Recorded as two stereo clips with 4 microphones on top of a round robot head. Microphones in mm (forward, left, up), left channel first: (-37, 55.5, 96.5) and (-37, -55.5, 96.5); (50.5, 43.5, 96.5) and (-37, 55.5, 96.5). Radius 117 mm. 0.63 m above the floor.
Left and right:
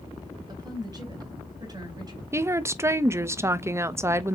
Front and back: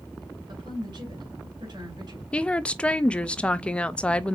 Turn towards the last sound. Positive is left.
turn(degrees=-65)